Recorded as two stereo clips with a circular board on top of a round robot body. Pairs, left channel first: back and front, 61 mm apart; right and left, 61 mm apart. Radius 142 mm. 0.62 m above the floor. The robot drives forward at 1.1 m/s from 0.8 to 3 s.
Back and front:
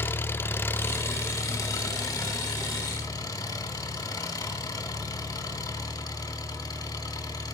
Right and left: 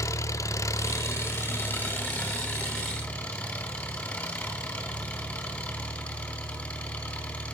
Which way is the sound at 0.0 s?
125° right.